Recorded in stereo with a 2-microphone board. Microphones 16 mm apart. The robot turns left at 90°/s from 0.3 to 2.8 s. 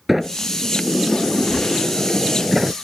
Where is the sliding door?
160° right; by 2.8 s 20° right.